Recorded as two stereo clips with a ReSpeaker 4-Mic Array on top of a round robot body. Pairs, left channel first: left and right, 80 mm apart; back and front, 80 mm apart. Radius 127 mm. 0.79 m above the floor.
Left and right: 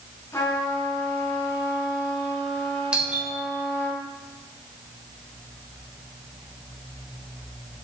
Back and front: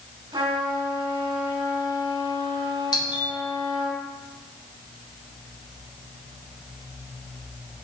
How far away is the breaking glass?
I don't hear breaking glass.